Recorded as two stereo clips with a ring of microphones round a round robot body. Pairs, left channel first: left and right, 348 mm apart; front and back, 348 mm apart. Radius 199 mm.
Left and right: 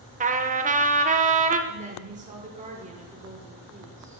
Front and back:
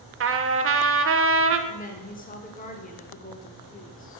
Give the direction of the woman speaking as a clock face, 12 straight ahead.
1 o'clock.